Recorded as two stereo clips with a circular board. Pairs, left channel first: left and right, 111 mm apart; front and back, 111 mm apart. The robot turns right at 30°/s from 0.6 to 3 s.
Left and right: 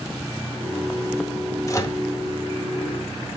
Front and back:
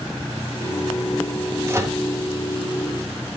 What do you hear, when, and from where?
1.7 s a microwave: 130° left, 0.7 m; by 2.0 s 140° left, 0.7 m